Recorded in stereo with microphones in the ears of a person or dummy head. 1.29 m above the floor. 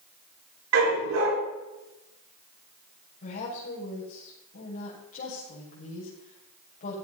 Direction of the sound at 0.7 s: 85° right.